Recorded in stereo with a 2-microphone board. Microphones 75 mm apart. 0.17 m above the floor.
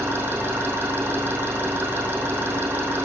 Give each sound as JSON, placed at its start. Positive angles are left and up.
{"t": 0.0, "sound": "an engine running", "side_deg": -25, "distance_m": 4.0}